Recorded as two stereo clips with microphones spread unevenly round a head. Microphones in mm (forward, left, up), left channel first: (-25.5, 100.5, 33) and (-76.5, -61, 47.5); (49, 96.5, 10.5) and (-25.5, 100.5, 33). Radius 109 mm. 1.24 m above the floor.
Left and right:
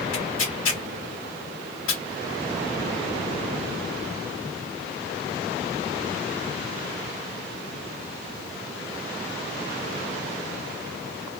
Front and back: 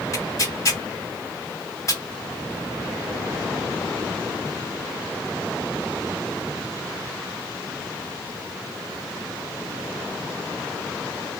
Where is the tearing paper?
45° left, 2.0 m.